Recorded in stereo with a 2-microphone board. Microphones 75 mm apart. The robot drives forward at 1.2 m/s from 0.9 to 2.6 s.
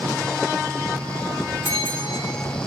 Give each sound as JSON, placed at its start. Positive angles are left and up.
{"t": 1.6, "sound": "a bell", "side_deg": 65, "distance_m": 3.0}